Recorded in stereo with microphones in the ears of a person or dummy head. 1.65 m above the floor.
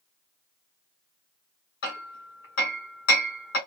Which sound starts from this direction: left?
Hammering, at 1.8 s.